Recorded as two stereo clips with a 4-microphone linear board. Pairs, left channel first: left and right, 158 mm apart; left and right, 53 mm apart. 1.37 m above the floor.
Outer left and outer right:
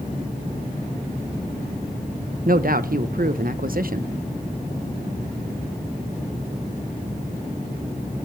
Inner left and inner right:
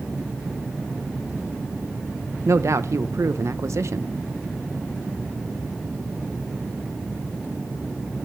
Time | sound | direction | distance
2.5 | a man speaking | 65° right (ahead or behind) | 1.0 m